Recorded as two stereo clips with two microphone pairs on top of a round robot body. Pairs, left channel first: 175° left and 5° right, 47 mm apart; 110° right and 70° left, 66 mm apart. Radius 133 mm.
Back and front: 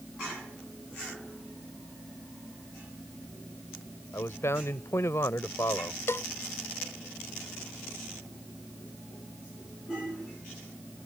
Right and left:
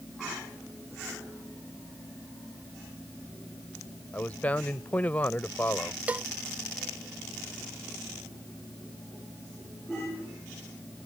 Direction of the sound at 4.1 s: 170° right.